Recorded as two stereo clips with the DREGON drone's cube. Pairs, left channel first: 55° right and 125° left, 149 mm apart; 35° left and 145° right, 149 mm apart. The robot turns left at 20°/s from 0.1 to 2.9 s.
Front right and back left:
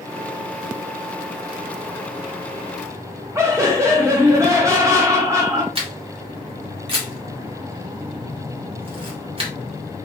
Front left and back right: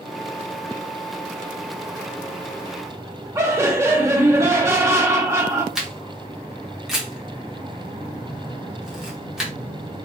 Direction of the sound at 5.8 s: 130° left.